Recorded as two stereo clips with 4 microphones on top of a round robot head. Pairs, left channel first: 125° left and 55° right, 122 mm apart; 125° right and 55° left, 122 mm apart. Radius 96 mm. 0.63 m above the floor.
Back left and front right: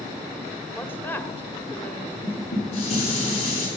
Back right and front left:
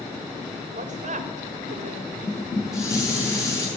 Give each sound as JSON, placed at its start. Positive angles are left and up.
{"t": 0.8, "sound": "a woman speaking", "azimuth_deg": 50, "distance_m": 1.8}
{"t": 2.2, "sound": "dishes clattering", "azimuth_deg": 165, "distance_m": 6.0}